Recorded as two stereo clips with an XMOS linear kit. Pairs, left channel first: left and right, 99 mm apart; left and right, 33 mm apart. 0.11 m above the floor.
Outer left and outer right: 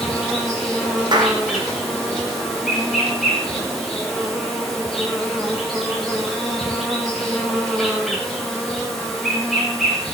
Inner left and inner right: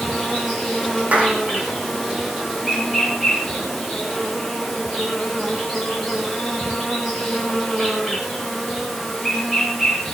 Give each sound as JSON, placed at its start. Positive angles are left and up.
{"t": 0.0, "sound": "an insect", "side_deg": 0, "distance_m": 5.0}
{"t": 1.1, "sound": "a clap", "side_deg": -45, "distance_m": 4.5}